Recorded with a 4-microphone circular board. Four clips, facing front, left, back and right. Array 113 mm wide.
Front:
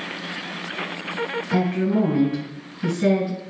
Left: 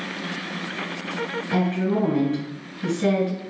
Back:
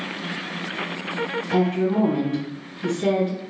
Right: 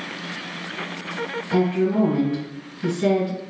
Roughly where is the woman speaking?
Ahead.